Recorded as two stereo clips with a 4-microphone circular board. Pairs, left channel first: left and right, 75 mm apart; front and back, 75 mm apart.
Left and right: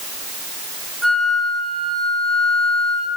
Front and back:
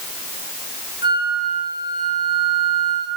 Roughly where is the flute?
Behind.